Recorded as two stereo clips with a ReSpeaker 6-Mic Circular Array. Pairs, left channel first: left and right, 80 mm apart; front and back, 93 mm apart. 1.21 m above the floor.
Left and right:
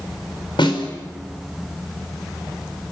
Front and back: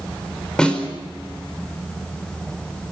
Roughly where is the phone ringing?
I don't hear a phone ringing.